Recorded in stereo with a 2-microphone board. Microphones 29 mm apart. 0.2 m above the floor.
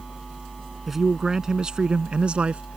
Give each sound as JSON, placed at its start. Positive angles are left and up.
{"t": 0.9, "sound": "a man speaking", "side_deg": -10}